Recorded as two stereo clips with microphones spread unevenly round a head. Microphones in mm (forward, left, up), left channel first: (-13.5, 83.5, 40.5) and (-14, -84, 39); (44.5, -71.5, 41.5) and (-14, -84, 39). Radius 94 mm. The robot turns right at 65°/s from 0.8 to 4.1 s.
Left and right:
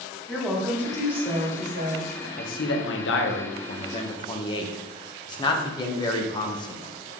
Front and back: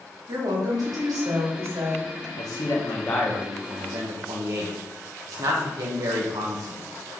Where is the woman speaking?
170° left, 3 m; by 2.3 s 95° right, 3 m.